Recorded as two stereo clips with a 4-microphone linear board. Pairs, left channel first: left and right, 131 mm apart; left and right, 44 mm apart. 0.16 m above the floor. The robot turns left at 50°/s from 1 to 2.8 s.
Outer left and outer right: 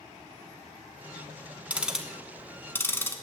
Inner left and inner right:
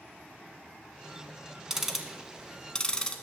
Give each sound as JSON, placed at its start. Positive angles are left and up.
{"t": 1.7, "sound": "ticking", "side_deg": -10, "distance_m": 1.3}